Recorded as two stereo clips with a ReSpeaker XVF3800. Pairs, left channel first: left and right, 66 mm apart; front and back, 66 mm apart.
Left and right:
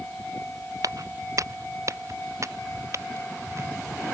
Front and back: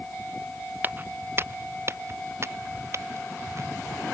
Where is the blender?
I don't hear a blender.